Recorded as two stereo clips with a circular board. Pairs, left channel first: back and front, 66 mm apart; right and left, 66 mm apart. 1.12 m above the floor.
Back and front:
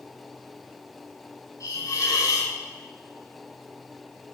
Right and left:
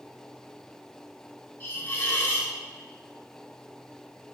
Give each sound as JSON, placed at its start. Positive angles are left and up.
{"t": 1.6, "sound": "a hiss", "azimuth_deg": -150, "distance_m": 3.0}